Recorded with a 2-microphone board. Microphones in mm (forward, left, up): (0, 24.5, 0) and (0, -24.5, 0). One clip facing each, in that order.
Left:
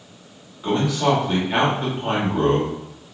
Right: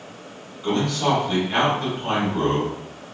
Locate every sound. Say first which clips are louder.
0.6 s a man speaking: left 2 dB; 15° left (ahead or behind), 1.0 m